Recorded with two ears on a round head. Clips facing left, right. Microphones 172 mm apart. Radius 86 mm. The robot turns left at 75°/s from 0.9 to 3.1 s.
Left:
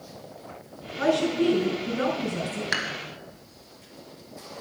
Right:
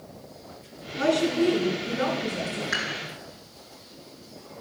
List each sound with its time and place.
1.0 s a woman speaking: 140° right, 5 m; by 2.6 s 95° left, 5 m
2.7 s dishes clattering: 70° left (ahead or behind), 1.9 m; by 3.0 s 55° left (ahead or behind), 1.9 m